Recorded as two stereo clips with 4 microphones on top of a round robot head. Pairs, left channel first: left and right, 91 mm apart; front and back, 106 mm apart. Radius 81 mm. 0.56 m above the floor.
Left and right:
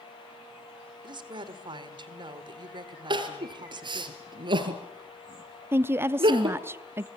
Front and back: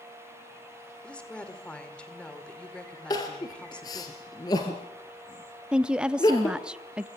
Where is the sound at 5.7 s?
110° right, 0.6 m.